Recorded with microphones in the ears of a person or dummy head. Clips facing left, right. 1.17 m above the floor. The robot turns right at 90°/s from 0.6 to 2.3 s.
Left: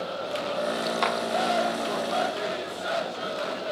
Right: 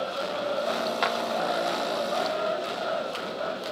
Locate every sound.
1.0 s a clap: centre (ahead or behind), 1.3 m; by 1.2 s 15° right (ahead or behind), 1.3 m